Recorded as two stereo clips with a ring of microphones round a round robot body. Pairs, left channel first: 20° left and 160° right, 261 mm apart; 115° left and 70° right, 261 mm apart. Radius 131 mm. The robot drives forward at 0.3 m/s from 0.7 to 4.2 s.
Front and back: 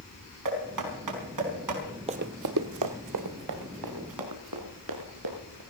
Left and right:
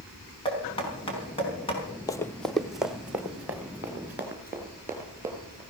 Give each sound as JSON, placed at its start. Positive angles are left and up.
{"t": 0.5, "sound": "knocking", "azimuth_deg": -175, "distance_m": 4.5}
{"t": 2.1, "sound": "running footsteps", "azimuth_deg": 170, "distance_m": 0.7}